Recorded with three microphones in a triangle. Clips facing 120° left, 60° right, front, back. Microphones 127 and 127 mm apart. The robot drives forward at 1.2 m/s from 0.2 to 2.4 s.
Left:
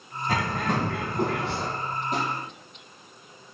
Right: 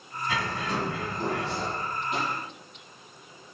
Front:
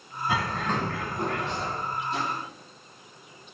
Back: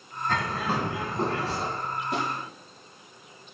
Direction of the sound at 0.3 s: 80° left.